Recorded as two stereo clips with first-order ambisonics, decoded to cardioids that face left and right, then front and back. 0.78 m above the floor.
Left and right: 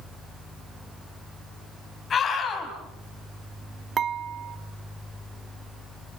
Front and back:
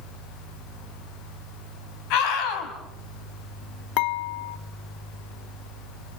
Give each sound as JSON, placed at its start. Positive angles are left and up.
{"t": 2.1, "sound": "a scream", "azimuth_deg": 20, "distance_m": 5.0}
{"t": 4.0, "sound": "dishes clattering", "azimuth_deg": -25, "distance_m": 0.7}